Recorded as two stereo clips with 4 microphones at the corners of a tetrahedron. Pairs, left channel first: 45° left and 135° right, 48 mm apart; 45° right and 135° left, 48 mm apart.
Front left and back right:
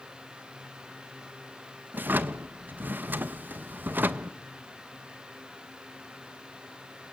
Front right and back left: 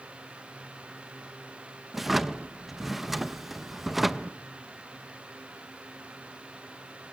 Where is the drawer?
140° right, 0.8 m.